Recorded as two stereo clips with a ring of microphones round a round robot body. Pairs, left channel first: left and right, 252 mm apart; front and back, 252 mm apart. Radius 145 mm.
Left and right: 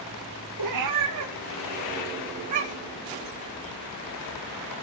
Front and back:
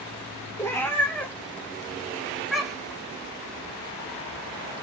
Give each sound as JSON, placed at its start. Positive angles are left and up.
{"t": 0.6, "sound": "a cat meowing", "azimuth_deg": -80, "distance_m": 3.0}